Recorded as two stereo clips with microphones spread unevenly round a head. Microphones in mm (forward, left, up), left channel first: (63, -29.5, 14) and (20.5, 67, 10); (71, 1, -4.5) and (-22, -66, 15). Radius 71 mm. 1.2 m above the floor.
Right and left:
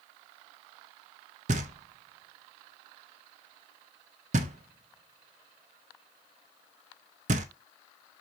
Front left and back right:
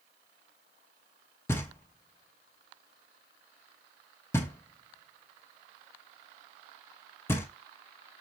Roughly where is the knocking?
Behind left.